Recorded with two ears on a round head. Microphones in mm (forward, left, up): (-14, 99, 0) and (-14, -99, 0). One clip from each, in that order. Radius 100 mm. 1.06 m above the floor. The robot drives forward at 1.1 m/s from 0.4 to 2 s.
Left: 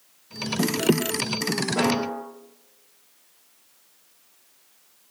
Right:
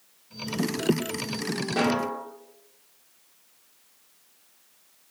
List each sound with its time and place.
1.8 s a snare drum: 60° right (ahead or behind), 2.5 m; by 2.2 s 70° right (ahead or behind), 2.5 m